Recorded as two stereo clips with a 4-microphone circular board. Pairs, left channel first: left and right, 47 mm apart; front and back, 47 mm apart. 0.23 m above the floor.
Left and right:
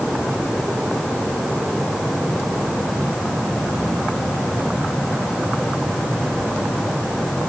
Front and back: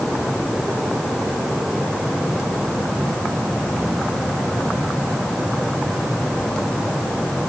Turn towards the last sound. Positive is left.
No sound to turn to.